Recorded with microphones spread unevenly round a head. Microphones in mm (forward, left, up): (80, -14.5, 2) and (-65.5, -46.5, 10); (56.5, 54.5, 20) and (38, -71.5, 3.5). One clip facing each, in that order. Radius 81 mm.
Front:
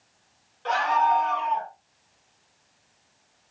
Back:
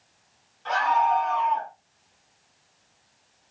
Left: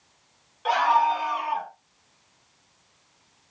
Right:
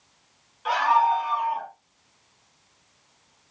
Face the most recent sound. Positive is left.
turn(degrees=95)